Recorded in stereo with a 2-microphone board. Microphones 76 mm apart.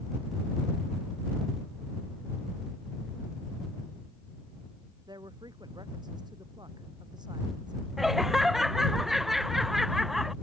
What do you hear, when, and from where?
5.1 s a woman speaking: 70° right (ahead or behind)
8.0 s laughter: 5° right (ahead or behind)